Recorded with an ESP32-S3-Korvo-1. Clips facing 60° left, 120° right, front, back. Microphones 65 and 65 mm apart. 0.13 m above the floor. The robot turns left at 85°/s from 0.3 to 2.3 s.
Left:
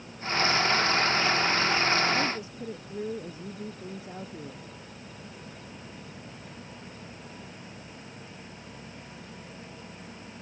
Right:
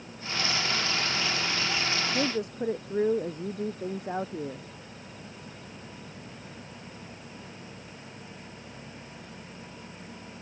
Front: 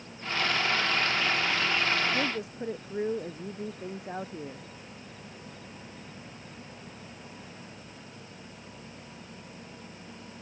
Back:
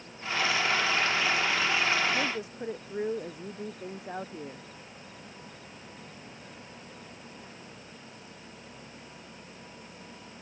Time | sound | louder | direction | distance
2.1 | a woman speaking | right 1 dB, front 1 dB | 80° right | ?